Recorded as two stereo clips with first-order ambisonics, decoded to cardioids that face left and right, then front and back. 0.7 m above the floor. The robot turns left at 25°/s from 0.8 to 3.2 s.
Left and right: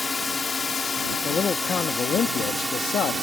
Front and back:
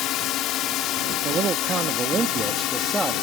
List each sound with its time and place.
0.0 s a drone: 10° left; by 3.2 s 15° right
1.2 s a man speaking: 150° left; by 3.1 s 100° left